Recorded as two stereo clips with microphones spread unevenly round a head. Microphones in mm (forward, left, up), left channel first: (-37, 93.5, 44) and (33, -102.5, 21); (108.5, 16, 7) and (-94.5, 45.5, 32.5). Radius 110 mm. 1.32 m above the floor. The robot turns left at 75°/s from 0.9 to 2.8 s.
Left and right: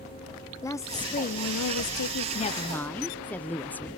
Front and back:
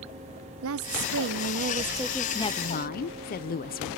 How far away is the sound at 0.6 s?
About 0.5 m.